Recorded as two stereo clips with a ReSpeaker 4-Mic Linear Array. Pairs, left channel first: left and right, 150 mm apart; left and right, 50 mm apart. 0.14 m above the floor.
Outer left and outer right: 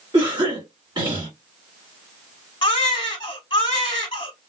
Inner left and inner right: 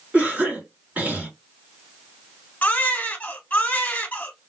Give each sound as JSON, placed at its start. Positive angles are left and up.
{"t": 0.1, "sound": "a cough", "side_deg": -35, "distance_m": 1.8}
{"t": 2.6, "sound": "a baby crying", "side_deg": 30, "distance_m": 1.0}